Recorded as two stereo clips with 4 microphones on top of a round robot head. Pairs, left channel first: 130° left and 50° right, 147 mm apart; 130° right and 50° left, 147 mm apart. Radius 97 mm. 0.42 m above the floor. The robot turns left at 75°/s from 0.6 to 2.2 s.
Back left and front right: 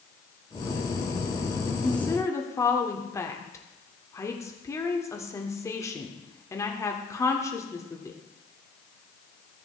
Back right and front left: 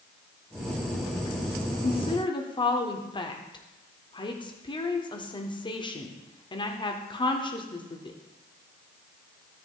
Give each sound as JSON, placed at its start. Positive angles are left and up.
{"t": 1.8, "sound": "a woman speaking", "azimuth_deg": -140, "distance_m": 1.4}